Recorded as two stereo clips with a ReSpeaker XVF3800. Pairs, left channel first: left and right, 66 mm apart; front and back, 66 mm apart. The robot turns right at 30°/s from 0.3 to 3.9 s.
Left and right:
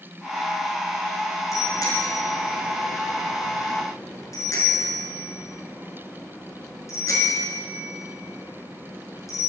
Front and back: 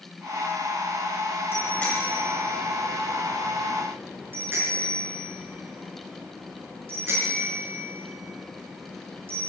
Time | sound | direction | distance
1.5 | a bicycle bell | 55° left | 5 m